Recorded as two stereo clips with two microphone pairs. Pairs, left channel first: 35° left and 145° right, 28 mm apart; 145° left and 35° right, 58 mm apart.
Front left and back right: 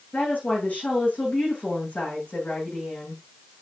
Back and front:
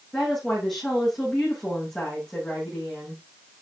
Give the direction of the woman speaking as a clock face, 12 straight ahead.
10 o'clock.